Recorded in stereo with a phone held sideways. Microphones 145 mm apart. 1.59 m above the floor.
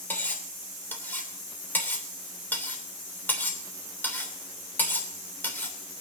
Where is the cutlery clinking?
15° left (ahead or behind), 3 m.